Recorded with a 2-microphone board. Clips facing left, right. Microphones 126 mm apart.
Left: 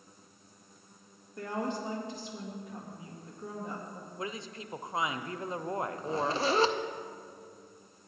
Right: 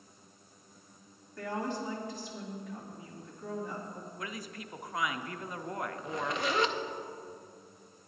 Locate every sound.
1.4 s a woman speaking: 20° left (ahead or behind), 2.5 m
4.2 s a woman speaking: 25° left (ahead or behind), 0.6 m
6.0 s a zipper: 30° left (ahead or behind), 0.6 m